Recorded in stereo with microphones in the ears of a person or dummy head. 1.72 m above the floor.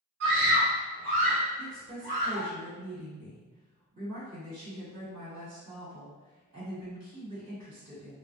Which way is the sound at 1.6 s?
70° right (ahead or behind).